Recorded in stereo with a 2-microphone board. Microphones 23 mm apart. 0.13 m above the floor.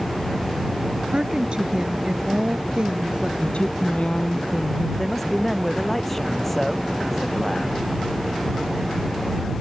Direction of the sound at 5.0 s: 10° left (ahead or behind).